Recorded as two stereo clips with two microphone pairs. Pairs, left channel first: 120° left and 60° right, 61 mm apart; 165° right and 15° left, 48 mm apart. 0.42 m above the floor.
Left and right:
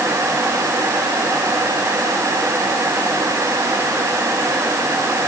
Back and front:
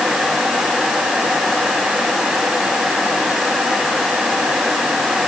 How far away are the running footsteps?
I don't hear running footsteps.